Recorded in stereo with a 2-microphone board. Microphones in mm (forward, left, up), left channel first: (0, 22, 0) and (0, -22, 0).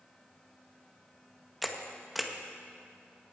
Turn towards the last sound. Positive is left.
turn(degrees=0)  # may be behind; listen again after turning